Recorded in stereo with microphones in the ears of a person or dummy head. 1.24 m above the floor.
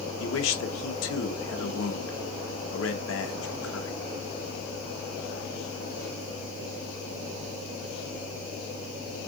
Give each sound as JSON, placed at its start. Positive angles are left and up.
{"t": 0.2, "sound": "a man speaking", "side_deg": 90, "distance_m": 1.0}